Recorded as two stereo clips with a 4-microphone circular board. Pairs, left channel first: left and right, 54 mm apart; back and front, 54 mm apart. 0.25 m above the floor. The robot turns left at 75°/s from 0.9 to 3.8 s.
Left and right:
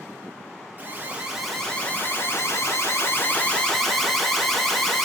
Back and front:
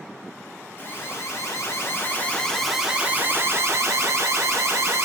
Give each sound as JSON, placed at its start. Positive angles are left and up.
{"t": 0.8, "sound": "an alarm", "azimuth_deg": -140, "distance_m": 1.4}